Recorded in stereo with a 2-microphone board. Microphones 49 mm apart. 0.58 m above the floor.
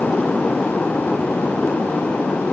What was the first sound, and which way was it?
Only background noise.